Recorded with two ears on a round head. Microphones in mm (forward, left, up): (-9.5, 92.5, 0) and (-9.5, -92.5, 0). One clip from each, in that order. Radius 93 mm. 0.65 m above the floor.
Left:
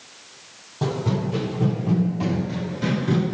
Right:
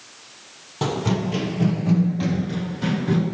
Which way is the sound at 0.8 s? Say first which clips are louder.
Right 2 dB; 50° right (ahead or behind).